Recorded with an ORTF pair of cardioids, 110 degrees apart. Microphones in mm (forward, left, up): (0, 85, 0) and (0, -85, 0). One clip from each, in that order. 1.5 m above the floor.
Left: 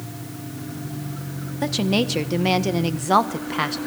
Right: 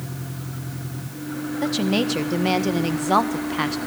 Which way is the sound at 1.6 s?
10° left.